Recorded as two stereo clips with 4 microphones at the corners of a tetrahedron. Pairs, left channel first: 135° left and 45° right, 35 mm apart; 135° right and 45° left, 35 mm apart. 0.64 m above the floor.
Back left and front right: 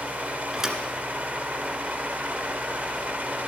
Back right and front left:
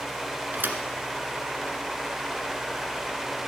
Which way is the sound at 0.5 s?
25° left.